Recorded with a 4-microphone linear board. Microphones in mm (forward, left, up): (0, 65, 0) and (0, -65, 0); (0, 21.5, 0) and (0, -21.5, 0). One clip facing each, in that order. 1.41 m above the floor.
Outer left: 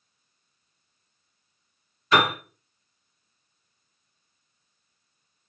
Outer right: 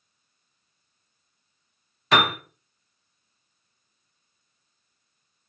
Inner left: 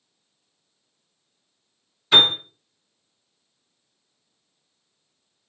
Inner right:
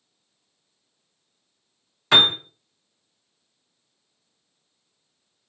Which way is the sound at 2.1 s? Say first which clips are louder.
Even, inner left 1 dB; 75° right (ahead or behind).